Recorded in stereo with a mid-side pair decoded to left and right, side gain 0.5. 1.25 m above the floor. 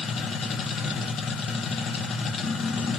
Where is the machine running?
55° left, 1.1 m.